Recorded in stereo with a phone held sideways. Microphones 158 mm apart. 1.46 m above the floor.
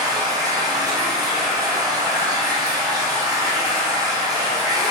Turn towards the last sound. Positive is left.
turn(degrees=-25)  # may be behind; listen again after turning